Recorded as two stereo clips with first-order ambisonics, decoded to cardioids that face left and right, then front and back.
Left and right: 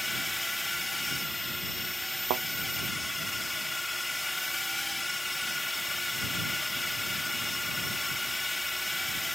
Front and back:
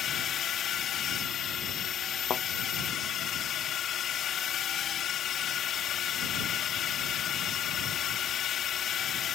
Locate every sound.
0.0 s a drone: 10° left
2.3 s a thud: 60° right